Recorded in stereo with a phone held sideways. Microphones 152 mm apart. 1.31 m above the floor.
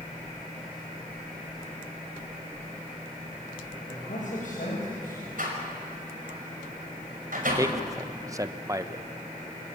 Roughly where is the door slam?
Right.